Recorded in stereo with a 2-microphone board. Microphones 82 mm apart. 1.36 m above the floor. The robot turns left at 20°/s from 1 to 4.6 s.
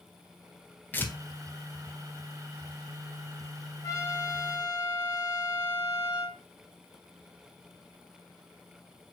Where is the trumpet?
40° left (ahead or behind), 1.1 m; by 6.4 s 50° left (ahead or behind), 1.1 m.